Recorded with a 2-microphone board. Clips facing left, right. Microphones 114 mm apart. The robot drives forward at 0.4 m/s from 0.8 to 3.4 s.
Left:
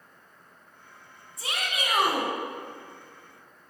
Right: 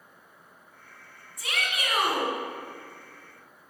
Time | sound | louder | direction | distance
1.4 | a shout | even | 30° left (ahead or behind) | 1.4 m